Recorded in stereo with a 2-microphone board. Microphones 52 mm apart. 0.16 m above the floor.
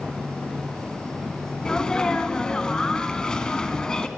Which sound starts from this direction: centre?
A sneeze, at 1.6 s.